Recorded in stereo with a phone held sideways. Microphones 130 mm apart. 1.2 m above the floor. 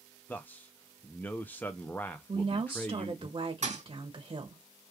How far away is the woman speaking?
About 1.1 m.